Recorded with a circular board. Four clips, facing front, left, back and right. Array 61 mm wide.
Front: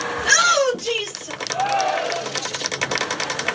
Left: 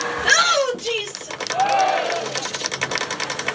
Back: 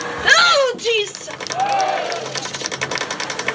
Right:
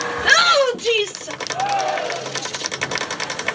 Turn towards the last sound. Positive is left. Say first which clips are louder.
# left 3 dB, back 3 dB
turn(degrees=125)